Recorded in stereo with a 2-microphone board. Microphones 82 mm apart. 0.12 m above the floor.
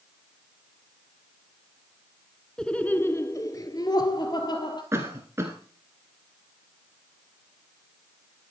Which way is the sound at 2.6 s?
10° left (ahead or behind).